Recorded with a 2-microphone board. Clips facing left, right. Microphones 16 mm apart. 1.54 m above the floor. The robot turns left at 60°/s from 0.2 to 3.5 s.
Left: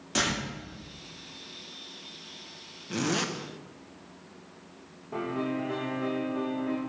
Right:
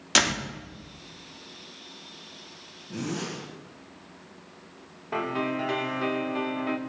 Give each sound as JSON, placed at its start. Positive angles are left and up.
{"t": 0.1, "sound": "a door slam", "side_deg": -65, "distance_m": 2.0}
{"t": 2.9, "sound": "a zipper", "side_deg": 80, "distance_m": 1.2}
{"t": 5.1, "sound": "a piano", "side_deg": -65, "distance_m": 1.2}